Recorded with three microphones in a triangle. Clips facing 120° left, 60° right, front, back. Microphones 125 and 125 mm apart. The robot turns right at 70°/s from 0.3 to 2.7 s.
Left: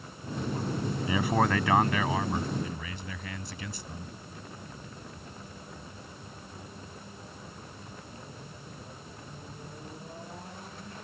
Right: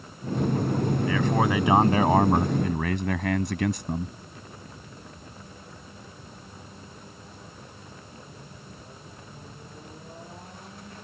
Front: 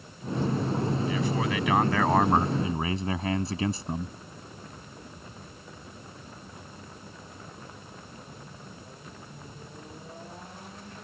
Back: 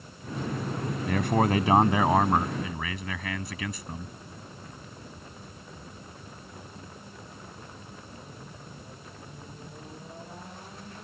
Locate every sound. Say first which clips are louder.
1.1 s a man speaking: even, back 3 dB; 170° right; by 4.2 s 55° right